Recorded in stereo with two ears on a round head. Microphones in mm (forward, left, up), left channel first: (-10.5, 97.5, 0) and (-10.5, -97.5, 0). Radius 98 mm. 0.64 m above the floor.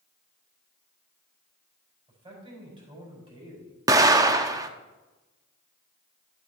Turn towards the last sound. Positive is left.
turn(degrees=-15)  # may be behind; listen again after turning